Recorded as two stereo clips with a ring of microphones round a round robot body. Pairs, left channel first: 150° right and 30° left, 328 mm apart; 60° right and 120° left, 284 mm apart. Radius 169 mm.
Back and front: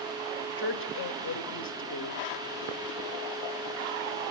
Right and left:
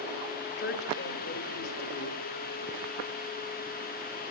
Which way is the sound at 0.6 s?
105° right.